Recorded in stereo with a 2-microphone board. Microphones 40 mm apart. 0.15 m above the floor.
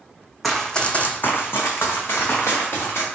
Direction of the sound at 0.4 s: Centre (ahead or behind).